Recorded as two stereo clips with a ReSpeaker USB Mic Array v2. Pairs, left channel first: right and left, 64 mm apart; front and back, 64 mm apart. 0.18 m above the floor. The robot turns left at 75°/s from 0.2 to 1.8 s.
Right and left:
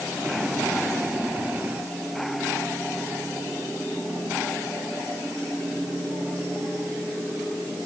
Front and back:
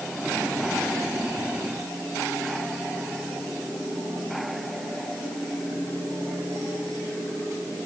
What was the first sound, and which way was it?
Only background noise.